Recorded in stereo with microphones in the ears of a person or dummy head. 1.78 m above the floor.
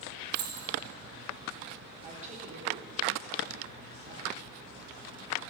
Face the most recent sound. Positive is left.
turn(degrees=-40)  # may be behind; listen again after turning